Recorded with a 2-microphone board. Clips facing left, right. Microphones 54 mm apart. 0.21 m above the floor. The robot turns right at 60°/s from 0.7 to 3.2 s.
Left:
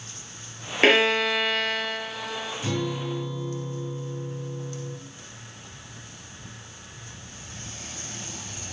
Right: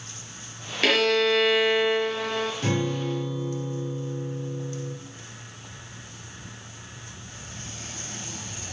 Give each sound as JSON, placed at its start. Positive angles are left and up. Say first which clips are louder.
{"t": 0.8, "sound": "a violin", "louder": "left 2 dB", "azimuth_deg": 145, "distance_m": 1.1}
{"t": 2.6, "sound": "a guitar", "louder": "right 2 dB", "azimuth_deg": -65, "distance_m": 4.0}